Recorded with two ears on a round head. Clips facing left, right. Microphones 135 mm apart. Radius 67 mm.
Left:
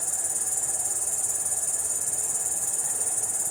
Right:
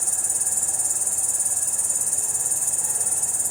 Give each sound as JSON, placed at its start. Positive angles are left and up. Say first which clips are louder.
{"t": 0.0, "sound": "an insect", "louder": "right 1 dB", "side_deg": -55, "distance_m": 1.4}